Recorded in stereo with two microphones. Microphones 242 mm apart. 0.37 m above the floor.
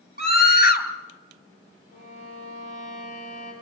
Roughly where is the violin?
Left.